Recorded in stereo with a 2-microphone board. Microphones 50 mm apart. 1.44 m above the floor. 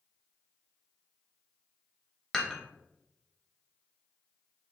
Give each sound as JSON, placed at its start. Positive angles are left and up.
{"t": 2.3, "sound": "dishes clattering", "side_deg": 10, "distance_m": 1.3}